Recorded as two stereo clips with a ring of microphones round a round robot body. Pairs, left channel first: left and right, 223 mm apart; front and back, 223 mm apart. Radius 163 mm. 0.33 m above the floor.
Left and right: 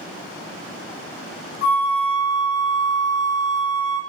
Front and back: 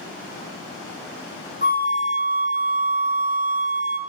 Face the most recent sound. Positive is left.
turn(degrees=130)